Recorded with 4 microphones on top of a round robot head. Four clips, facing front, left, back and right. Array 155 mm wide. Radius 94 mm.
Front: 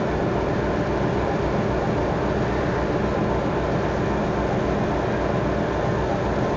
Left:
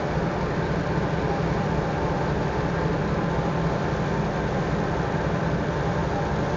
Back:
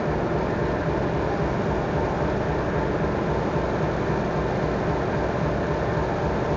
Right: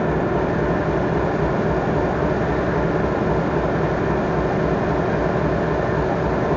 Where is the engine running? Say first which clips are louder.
Right 6 dB, front 2 dB; 80° right, 1.0 m.